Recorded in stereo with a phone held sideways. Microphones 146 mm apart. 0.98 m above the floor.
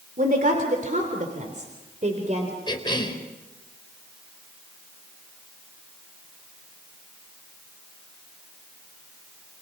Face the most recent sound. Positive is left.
turn(degrees=30)  # may be behind; listen again after turning